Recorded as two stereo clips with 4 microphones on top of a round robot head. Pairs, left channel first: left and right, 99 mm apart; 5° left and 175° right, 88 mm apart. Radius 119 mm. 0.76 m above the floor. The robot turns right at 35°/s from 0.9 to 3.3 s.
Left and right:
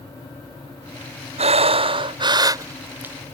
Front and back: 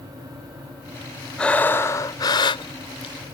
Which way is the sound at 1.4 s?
75° right.